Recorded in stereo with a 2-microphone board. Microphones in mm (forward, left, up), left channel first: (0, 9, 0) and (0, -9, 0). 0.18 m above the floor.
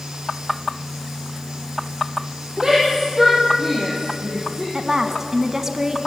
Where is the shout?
35° right (ahead or behind), 5.5 m; by 4.6 s 10° right (ahead or behind), 7 m.